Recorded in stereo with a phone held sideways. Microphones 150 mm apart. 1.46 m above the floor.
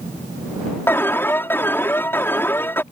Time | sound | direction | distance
0.9 | an alarm | 15° left (ahead or behind) | ?